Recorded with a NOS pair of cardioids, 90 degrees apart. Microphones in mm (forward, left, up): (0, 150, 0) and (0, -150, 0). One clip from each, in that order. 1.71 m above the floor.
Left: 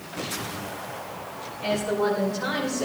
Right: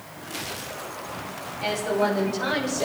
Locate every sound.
1.6 s a woman speaking: 55° right, 5 m; by 2.8 s 45° right, 6.5 m